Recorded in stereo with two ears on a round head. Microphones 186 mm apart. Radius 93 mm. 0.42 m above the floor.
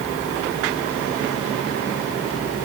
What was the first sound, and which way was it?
Only background noise.